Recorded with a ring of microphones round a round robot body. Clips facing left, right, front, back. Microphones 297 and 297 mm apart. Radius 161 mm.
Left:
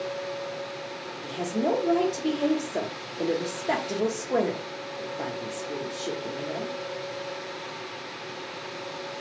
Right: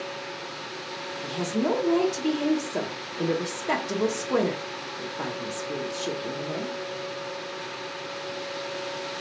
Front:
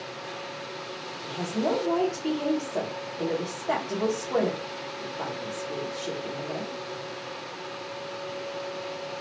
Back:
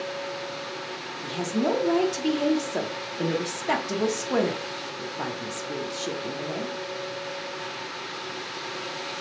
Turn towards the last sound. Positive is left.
turn(degrees=-155)